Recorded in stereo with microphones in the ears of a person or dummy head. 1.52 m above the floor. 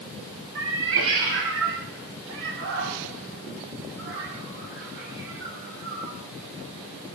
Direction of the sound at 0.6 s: 60° right (ahead or behind).